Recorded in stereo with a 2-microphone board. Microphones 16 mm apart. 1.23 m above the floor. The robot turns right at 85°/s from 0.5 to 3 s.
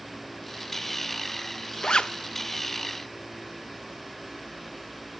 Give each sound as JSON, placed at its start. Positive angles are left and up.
{"t": 1.8, "sound": "a zipper", "side_deg": 50, "distance_m": 0.6}